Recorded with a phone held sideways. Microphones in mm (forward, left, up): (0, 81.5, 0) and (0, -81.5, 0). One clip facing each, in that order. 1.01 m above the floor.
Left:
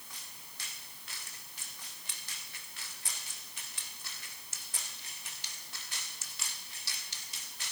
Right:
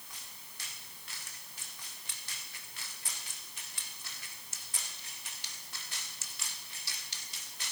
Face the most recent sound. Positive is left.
No sound to turn to.